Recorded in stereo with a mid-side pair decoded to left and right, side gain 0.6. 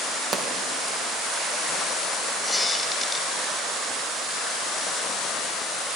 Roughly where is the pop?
Ahead right.